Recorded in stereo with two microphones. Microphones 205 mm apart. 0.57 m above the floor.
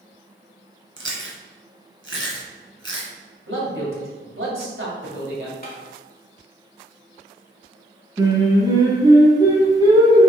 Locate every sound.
1.0 s chewing: 75° right (ahead or behind), 1.8 m
3.5 s a man speaking: 75° right (ahead or behind), 2.5 m
5.6 s tapping: 45° left (ahead or behind), 1.4 m
8.2 s singing: 20° right (ahead or behind), 1.7 m